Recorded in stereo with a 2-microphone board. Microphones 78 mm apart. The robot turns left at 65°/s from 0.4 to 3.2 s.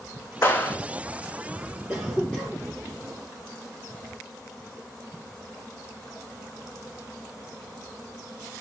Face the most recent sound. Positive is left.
turn(degrees=125)